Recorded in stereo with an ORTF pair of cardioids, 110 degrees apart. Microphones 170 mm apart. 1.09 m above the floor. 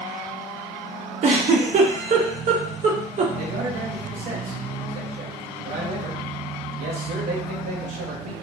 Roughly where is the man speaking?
Right.